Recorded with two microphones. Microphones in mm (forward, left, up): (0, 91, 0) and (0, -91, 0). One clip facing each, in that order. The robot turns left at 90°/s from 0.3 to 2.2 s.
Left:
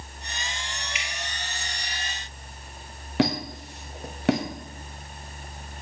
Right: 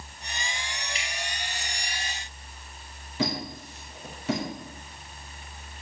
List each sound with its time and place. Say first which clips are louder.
0.9 s dripping: even; 35° right (ahead or behind), 3 m; by 1.1 s 25° right (ahead or behind), 3 m
3.2 s a squeak: left 6 dB; 75° left (ahead or behind), 2 m